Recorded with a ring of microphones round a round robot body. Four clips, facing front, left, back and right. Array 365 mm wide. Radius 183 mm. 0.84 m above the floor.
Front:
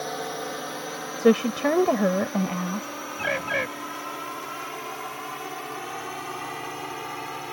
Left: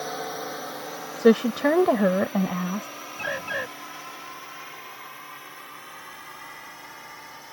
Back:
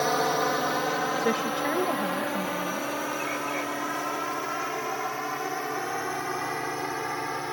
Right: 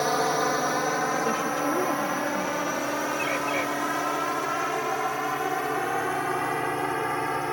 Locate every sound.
0.0 s a drone: 135° right; by 7.5 s 105° right
1.2 s a woman speaking: 55° left
3.2 s a bird: 10° left